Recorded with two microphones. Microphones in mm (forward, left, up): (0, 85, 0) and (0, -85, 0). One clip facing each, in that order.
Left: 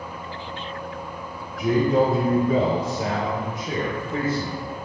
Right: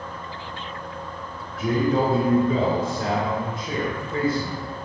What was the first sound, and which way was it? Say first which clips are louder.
A man speaking: left 2 dB; centre (ahead or behind).